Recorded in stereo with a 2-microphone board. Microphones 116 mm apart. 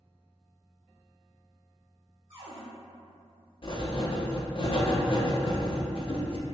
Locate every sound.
2.3 s a cupboard door: 60° right (ahead or behind), 1.9 m
3.6 s writing: 45° left (ahead or behind), 0.5 m